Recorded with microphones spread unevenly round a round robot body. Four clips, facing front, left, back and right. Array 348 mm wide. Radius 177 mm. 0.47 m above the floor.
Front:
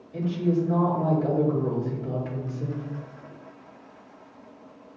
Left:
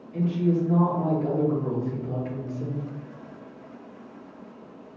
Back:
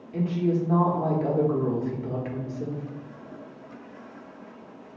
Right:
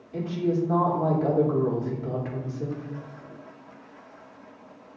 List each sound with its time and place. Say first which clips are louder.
0.1 s a woman speaking: left 2 dB, even; 150° right, 1.1 m